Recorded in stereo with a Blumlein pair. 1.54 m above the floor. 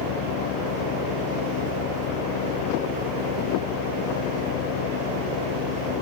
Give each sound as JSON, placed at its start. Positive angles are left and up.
{"t": 0.0, "sound": "a fan", "azimuth_deg": 40}